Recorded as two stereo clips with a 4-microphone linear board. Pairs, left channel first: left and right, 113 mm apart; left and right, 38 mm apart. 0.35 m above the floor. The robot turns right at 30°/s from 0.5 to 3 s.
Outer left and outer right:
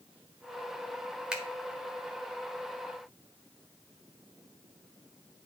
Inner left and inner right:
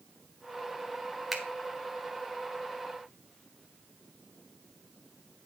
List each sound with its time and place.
1.3 s a finger snap: 5° right (ahead or behind), 1.3 m